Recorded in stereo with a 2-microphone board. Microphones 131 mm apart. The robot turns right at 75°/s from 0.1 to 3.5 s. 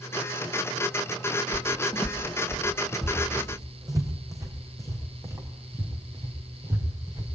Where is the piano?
I don't hear a piano.